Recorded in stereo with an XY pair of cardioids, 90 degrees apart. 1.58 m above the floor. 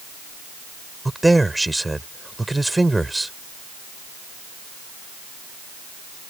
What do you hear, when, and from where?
1.1 s a man speaking: 10° right